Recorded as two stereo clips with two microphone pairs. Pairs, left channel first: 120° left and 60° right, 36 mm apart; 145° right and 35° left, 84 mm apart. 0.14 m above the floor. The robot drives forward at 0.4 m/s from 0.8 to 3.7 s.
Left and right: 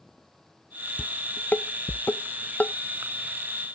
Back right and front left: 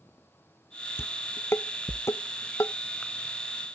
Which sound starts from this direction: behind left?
Dishes clattering, at 1.0 s.